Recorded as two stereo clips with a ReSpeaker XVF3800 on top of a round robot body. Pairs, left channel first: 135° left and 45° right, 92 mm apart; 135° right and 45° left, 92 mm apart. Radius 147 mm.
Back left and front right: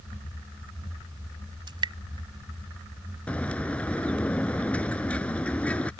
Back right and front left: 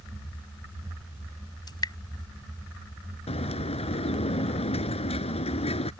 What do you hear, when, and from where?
1.7 s dripping: 85° right
3.3 s a bird: 150° right